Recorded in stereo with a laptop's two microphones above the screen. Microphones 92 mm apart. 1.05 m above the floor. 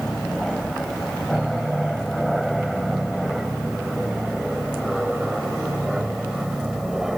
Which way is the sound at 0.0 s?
Centre (ahead or behind).